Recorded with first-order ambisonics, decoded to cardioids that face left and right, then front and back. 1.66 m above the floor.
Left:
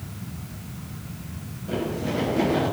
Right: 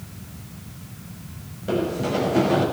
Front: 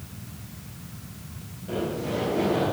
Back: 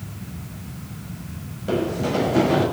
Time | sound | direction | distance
1.7 | running footsteps | 140° right | 5.5 m